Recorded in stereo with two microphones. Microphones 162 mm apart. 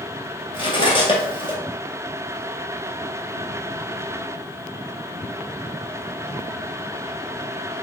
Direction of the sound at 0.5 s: 30° left (ahead or behind).